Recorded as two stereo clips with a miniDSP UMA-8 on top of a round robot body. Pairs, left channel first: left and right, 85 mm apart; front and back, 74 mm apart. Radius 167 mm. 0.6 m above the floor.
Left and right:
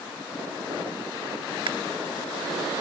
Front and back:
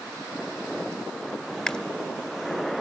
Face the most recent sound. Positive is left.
turn(degrees=-80)